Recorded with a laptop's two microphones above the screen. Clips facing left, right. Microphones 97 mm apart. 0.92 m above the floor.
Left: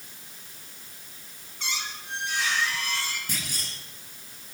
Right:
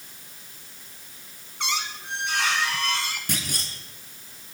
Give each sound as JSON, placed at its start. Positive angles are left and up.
{"t": 1.6, "sound": "a squeak", "side_deg": -70, "distance_m": 2.5}
{"t": 3.3, "sound": "a clunk", "side_deg": -75, "distance_m": 2.5}